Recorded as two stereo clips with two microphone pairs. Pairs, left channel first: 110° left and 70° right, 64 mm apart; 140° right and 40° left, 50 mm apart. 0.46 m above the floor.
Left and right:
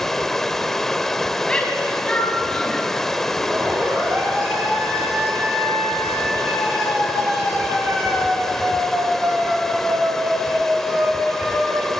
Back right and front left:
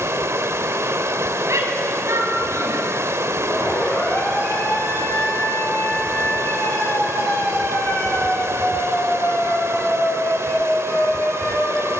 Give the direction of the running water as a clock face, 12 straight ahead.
11 o'clock.